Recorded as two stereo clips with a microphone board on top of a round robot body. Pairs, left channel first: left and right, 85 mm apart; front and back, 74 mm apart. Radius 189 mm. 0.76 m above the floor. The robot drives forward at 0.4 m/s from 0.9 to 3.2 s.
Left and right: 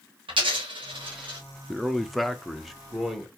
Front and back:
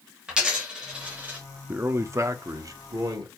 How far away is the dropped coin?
About 0.8 m.